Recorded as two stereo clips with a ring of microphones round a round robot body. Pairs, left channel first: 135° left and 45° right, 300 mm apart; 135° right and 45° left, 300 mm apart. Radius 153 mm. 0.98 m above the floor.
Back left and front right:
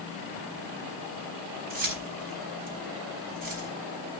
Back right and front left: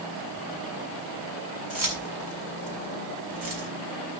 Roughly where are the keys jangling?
Ahead.